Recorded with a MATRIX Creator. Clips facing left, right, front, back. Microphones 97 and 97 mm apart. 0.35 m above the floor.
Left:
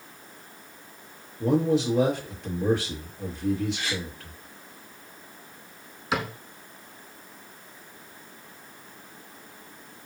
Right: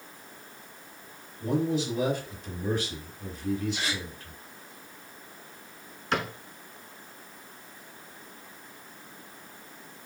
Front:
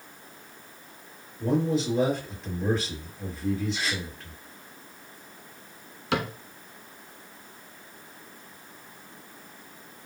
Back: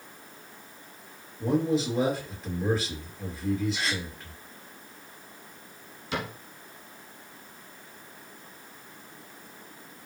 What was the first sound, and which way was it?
A man speaking, 95° left.